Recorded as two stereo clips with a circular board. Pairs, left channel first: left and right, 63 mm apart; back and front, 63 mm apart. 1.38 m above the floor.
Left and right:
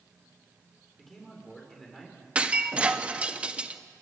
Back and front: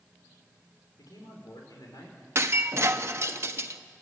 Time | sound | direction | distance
1.0 | a man speaking | 175° left | 5.5 m
2.4 | breaking glass | 25° right | 0.9 m